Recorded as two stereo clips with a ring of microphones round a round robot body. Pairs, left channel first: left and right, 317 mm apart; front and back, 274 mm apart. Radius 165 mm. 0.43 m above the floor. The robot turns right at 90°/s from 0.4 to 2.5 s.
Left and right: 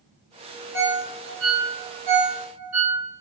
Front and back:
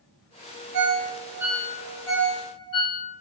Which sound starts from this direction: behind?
A ringtone, at 0.7 s.